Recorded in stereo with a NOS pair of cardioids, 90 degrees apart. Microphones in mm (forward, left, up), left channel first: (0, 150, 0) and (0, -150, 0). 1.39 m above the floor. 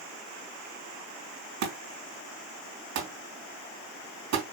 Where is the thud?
65° right, 3.5 m.